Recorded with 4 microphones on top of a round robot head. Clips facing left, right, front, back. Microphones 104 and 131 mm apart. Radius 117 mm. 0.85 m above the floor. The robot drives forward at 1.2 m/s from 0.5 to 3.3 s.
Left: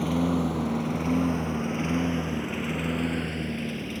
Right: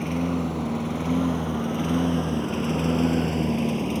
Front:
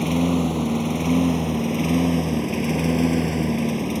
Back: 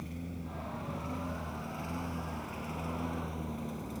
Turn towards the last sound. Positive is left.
turn(degrees=-25)